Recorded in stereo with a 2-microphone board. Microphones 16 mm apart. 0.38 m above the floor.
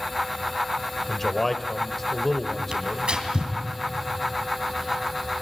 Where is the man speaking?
15° left (ahead or behind), 1.2 m.